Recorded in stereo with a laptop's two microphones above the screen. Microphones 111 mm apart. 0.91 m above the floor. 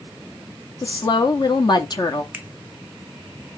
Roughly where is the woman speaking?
Left.